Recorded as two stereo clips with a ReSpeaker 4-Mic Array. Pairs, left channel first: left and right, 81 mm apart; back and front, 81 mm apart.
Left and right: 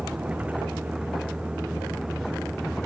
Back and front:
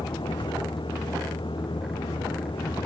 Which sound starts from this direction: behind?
A vehicle, at 0.0 s.